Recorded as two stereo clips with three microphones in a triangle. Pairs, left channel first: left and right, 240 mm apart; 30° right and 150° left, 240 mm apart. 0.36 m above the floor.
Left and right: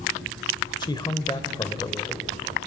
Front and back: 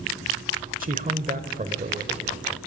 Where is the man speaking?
145° left, 1.1 m.